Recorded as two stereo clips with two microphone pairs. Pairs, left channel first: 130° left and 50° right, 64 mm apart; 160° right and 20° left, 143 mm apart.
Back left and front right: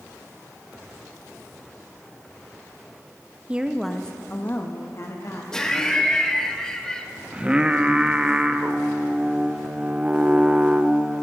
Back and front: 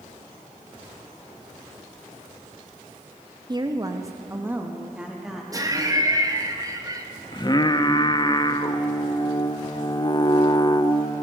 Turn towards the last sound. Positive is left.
turn(degrees=-115)